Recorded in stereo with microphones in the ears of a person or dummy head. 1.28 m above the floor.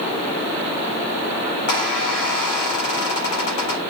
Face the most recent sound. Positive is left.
turn(degrees=55)  # may be behind; listen again after turning